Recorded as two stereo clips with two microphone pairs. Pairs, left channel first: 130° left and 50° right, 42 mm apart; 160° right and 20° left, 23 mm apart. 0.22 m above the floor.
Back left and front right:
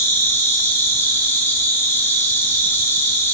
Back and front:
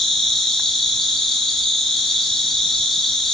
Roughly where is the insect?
Behind left.